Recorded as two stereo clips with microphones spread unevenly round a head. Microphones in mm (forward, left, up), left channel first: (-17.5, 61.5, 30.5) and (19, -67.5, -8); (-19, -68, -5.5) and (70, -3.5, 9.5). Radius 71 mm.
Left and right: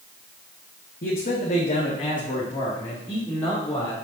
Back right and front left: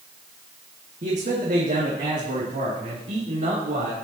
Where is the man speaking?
80° left, 1.8 m; by 3.9 s 30° left, 4 m.